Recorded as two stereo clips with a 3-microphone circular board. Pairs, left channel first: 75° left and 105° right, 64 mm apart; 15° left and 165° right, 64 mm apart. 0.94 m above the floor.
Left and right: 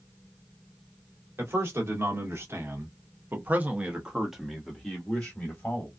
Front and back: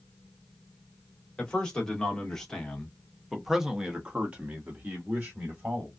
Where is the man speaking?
60° right, 1.6 m; by 5.9 s 140° left, 1.2 m.